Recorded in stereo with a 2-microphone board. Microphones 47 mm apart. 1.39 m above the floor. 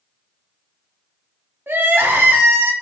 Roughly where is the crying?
Right.